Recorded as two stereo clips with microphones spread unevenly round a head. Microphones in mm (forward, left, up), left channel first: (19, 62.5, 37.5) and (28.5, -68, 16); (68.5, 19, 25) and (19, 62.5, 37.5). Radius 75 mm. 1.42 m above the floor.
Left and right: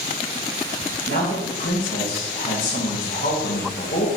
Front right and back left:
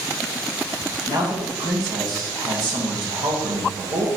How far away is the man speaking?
About 2.0 m.